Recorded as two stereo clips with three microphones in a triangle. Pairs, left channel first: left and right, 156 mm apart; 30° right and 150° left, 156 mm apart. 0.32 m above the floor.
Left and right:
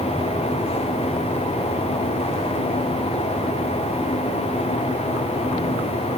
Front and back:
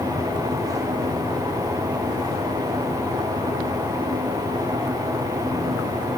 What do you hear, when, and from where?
Only background noise.